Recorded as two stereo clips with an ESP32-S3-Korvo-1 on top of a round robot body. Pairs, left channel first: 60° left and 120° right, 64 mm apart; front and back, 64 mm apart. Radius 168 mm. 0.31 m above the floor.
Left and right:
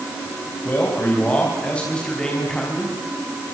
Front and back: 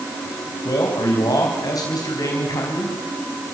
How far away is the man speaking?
About 4.5 m.